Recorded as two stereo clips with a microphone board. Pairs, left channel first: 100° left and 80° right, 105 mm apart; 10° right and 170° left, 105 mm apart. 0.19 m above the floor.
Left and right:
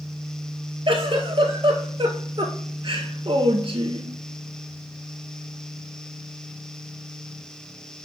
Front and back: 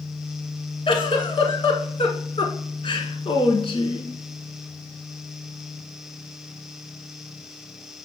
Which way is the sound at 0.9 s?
45° right.